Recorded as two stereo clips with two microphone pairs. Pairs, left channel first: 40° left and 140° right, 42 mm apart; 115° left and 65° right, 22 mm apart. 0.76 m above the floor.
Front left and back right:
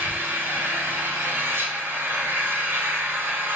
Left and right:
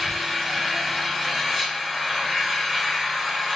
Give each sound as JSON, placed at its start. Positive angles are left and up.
{"t": 0.0, "sound": "an engine running", "azimuth_deg": -125, "distance_m": 3.0}